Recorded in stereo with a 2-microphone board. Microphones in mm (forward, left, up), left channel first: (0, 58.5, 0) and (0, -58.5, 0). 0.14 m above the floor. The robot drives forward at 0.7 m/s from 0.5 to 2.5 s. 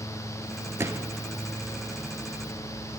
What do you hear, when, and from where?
0.8 s a gunshot: 25° right (ahead or behind), 0.6 m; by 1.2 s 15° right (ahead or behind), 0.9 m